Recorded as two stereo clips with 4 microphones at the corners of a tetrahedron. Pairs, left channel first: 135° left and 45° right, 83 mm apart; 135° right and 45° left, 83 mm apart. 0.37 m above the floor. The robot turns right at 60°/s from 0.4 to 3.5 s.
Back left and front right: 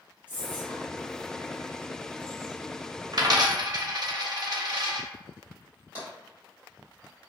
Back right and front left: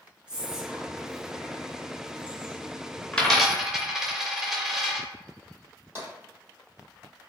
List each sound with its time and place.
0.3 s whispering: 100° left, 0.9 m; by 2.7 s 120° right, 0.9 m
3.1 s a dropped coin: 60° right, 0.6 m; by 5.1 s 40° right, 0.6 m
6.0 s tapping: 10° left, 1.9 m